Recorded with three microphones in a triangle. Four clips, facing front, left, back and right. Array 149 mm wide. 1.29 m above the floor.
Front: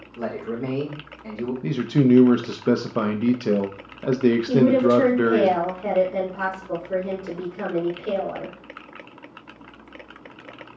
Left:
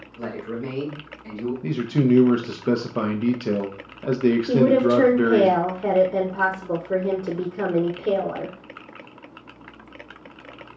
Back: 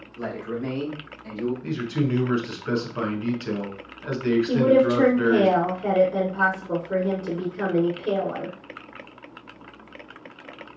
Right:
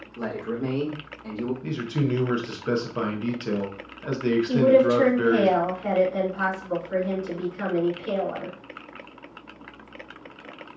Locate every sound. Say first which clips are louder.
0.2 s a man speaking: right 1 dB, front 2 dB; 55° right, 1.7 m
1.6 s a man speaking: left 10 dB, front 7 dB; 25° left, 0.6 m
4.5 s a woman speaking: right 1 dB, even; 95° left, 0.9 m